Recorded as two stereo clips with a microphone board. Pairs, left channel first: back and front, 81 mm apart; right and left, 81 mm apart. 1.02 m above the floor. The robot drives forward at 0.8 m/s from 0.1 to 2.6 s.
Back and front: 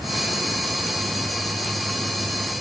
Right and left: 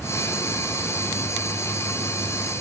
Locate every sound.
Only background noise.